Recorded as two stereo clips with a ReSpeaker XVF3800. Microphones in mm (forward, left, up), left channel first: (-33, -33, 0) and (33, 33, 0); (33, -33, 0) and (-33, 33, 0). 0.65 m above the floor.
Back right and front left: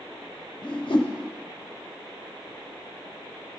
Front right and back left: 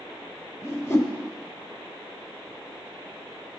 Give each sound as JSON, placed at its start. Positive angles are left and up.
{"t": 0.6, "sound": "a whoosh", "azimuth_deg": -100, "distance_m": 0.8}